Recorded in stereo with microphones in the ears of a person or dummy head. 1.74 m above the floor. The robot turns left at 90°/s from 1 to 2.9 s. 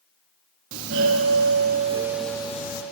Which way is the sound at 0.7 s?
65° right.